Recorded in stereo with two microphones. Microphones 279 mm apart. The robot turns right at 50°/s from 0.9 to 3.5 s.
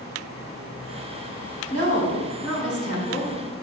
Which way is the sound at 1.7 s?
80° left.